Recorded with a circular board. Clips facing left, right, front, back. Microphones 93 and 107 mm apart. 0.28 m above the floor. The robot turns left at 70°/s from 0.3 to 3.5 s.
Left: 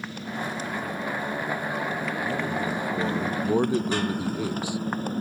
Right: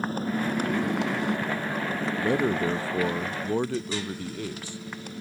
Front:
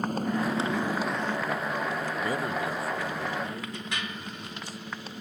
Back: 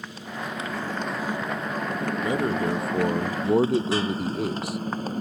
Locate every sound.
0.0 s a motorcycle: 40° right; by 5.2 s 135° left
2.2 s a man speaking: 100° right; by 4.8 s 165° left